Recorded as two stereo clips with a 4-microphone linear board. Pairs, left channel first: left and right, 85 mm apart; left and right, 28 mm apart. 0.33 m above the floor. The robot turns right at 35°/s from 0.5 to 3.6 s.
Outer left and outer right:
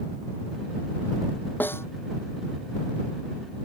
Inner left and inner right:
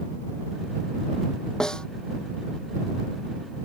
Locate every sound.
1.6 s a snare drum: 20° left (ahead or behind); by 1.9 s 30° left (ahead or behind)